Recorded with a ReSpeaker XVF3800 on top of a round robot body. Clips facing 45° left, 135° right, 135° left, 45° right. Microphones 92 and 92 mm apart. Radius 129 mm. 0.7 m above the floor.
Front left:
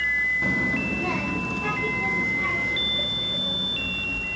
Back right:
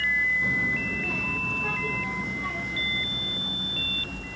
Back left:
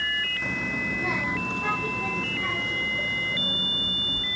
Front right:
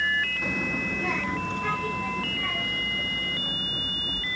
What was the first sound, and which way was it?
A child speaking, 40° left.